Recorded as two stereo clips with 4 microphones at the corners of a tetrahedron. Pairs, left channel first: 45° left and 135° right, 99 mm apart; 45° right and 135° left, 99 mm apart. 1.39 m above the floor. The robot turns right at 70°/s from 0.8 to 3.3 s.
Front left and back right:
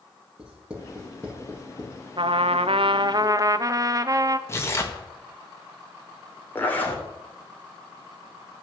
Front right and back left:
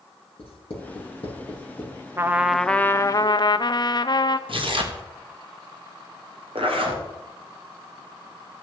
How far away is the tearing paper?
About 2.0 m.